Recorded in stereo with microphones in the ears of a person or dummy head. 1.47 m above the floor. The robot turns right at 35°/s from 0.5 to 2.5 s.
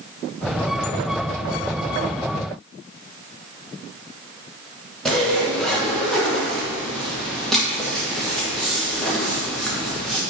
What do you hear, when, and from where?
5.0 s a zipper: centre (ahead or behind), 1.3 m